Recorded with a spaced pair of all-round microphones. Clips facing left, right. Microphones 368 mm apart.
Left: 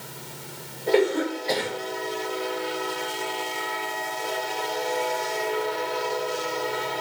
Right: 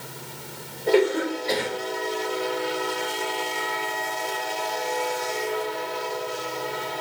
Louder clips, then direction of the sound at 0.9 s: Right 1 dB; 15° right (ahead or behind).